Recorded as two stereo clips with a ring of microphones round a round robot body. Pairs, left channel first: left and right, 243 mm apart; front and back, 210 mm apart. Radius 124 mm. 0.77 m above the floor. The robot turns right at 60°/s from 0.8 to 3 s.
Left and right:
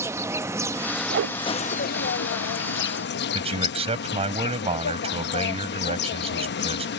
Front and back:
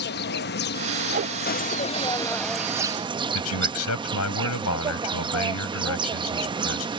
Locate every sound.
0.0 s an insect: 15° right; by 7.0 s 120° left
1.1 s a whoosh: 130° right; by 1.4 s 115° right
3.3 s a man speaking: 25° right